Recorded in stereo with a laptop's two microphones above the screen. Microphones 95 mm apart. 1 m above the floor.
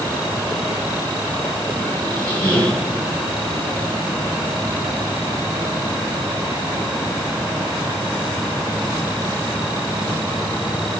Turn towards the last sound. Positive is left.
turn(degrees=20)  # may be behind; listen again after turning